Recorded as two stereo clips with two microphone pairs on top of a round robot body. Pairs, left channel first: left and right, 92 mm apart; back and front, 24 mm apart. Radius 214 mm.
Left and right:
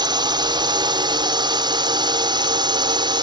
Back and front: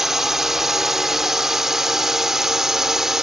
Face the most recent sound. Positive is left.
turn(degrees=-70)